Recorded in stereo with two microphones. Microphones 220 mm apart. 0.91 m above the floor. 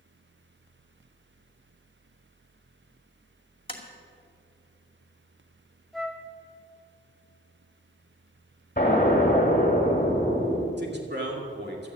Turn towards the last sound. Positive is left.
turn(degrees=-50)  # may be behind; listen again after turning